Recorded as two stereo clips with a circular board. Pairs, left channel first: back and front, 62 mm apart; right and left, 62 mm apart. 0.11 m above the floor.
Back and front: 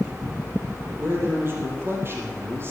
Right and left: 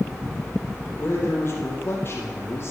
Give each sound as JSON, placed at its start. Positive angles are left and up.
{"t": 1.0, "sound": "a man speaking", "azimuth_deg": -45, "distance_m": 4.0}